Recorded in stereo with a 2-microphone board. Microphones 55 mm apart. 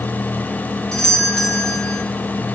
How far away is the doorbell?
About 3 m.